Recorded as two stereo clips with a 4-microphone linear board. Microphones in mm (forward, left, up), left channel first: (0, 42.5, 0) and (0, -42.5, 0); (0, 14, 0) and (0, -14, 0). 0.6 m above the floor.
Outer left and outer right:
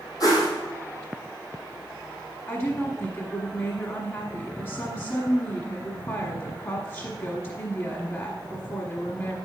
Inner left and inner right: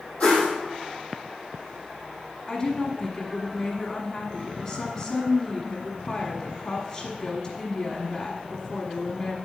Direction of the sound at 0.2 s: 45° left (ahead or behind).